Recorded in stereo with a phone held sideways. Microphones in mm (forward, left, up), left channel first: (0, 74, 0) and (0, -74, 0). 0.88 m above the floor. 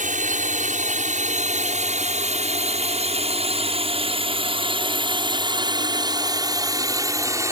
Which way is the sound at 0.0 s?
60° right (ahead or behind).